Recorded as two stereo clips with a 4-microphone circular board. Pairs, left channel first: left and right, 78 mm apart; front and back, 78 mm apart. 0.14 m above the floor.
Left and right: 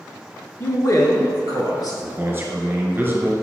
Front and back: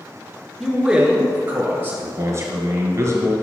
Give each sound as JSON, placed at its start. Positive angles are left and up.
{"t": 0.6, "sound": "a man speaking", "azimuth_deg": 95, "distance_m": 1.4}
{"t": 2.0, "sound": "a man speaking", "azimuth_deg": -145, "distance_m": 1.9}